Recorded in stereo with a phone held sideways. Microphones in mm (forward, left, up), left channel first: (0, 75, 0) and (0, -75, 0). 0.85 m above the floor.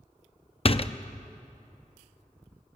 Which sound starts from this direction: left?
A door slam, at 0.7 s.